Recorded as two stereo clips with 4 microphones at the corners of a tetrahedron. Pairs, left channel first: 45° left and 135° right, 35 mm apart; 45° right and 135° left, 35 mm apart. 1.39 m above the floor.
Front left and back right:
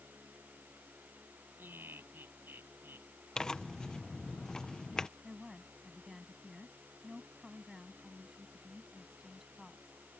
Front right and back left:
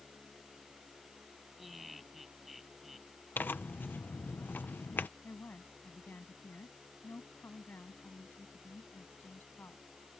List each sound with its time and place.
1.6 s laughter: 140° right
3.4 s tearing paper: 25° right
5.2 s a woman speaking: 55° right